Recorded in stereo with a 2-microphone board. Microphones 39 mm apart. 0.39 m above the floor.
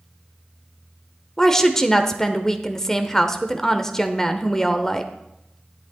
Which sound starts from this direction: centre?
A woman speaking, at 1.4 s.